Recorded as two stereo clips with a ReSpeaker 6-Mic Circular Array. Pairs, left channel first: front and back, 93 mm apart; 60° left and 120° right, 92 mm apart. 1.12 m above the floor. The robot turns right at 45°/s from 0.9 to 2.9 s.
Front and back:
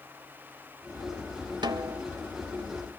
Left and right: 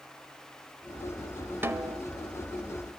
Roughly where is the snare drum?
Behind.